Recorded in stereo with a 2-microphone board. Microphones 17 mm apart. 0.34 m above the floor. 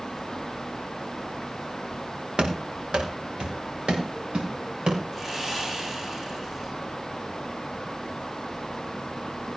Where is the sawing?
25° right (ahead or behind), 8 m.